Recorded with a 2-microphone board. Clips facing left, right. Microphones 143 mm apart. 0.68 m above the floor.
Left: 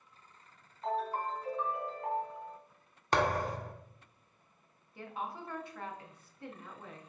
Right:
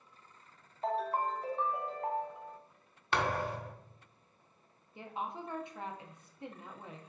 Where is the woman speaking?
20° right (ahead or behind), 0.7 m.